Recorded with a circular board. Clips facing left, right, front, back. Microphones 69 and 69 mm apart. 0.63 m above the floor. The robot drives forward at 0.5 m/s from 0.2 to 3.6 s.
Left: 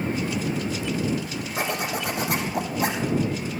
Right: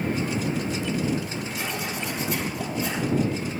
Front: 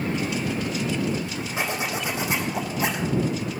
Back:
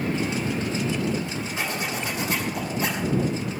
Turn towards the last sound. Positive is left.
turn(degrees=90)